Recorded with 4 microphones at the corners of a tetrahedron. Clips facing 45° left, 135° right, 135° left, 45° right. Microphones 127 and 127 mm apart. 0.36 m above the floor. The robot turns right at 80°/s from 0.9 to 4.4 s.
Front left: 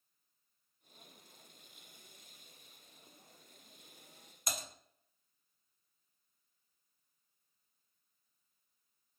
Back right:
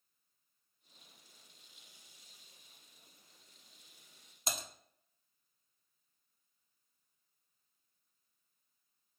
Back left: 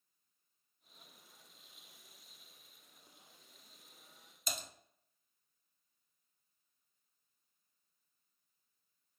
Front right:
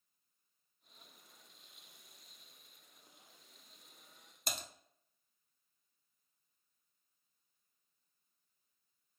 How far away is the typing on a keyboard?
About 0.5 m.